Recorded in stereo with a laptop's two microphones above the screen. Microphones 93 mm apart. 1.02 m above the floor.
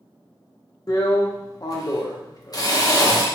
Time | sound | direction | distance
0.9 | a drill | 40° left (ahead or behind) | 0.8 m